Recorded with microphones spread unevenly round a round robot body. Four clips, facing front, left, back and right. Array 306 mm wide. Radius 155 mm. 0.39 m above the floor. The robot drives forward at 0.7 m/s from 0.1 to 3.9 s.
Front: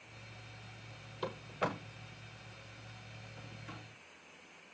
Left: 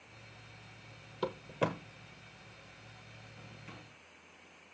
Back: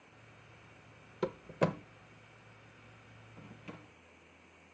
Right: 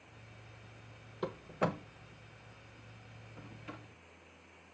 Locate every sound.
1.2 s a door slam: 165° left, 0.6 m; by 3.8 s 175° left, 2 m